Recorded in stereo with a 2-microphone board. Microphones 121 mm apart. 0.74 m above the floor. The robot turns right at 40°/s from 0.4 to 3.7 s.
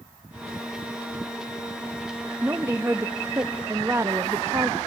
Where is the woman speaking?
15° right (ahead or behind), 0.6 m; by 4.8 s 20° right (ahead or behind), 0.6 m.